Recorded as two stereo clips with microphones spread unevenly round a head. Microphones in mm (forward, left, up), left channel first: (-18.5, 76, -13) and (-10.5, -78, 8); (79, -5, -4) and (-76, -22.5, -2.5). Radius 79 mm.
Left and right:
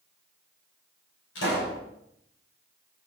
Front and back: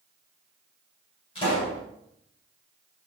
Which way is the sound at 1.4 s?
65° left.